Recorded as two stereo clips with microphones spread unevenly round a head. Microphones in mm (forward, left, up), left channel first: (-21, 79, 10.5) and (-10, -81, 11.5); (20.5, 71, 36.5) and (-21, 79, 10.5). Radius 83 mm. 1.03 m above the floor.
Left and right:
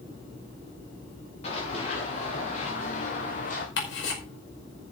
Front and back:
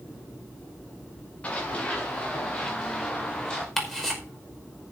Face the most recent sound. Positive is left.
turn(degrees=75)